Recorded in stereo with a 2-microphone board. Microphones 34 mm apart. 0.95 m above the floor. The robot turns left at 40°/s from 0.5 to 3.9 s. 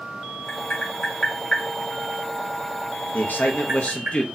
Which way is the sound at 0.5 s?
65° left (ahead or behind).